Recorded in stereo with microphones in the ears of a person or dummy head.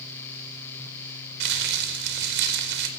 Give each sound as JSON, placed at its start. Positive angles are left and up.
{"t": 1.4, "sound": "crumpling", "side_deg": -65, "distance_m": 4.5}